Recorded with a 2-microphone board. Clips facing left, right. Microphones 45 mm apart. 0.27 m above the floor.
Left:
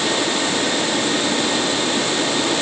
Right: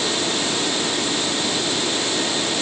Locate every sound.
Only background noise.